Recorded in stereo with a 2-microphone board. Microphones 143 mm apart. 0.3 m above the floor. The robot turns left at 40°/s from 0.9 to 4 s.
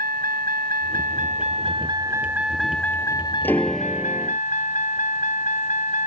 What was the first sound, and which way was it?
A vehicle, 110° right.